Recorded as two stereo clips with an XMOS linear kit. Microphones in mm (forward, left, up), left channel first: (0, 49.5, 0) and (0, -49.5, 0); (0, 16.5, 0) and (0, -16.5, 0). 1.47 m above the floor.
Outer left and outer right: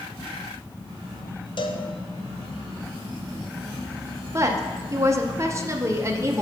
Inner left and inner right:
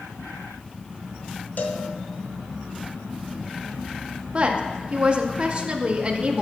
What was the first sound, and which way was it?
A cowbell, 55° left (ahead or behind).